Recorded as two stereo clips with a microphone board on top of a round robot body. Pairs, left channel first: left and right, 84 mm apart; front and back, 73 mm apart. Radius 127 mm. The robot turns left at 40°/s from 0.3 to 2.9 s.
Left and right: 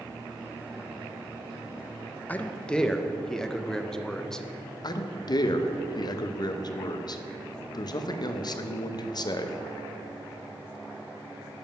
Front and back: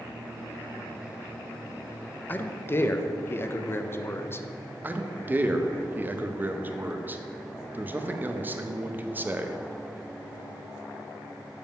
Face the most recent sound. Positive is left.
turn(degrees=120)